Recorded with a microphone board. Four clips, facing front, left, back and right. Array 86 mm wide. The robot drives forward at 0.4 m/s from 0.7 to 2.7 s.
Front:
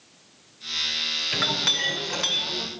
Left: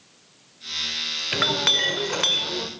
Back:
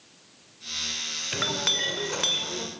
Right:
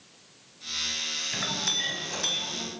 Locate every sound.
1.3 s a clink: 85° left, 2 m; by 2.7 s 100° left, 2 m